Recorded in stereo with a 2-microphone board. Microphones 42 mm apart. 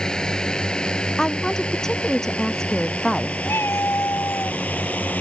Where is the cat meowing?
80° left.